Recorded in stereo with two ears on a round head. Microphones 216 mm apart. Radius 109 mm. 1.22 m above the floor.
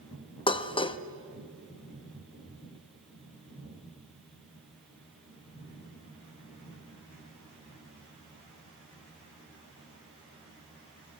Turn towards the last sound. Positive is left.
turn(degrees=20)  # may be behind; listen again after turning